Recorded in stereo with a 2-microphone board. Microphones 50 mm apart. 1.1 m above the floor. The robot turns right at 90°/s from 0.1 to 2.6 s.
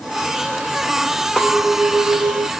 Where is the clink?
160° left, 1.6 m; by 2.5 s 95° right, 1.6 m.